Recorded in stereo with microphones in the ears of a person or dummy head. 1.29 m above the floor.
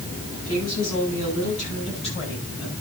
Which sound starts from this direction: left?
A woman speaking, at 0.5 s.